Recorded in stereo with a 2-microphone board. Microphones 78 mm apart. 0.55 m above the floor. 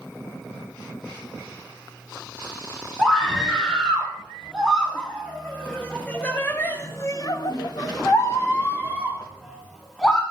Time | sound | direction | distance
3.0 | a scream | 5° left (ahead or behind) | 7 m